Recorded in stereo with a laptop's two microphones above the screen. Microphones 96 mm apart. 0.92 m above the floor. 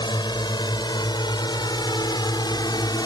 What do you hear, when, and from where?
0.0 s a drone: 50° left (ahead or behind); by 3.1 s 45° left (ahead or behind)